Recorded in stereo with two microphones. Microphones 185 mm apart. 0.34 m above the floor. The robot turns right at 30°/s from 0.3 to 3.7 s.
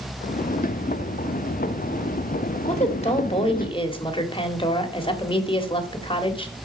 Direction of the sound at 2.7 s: 100° left.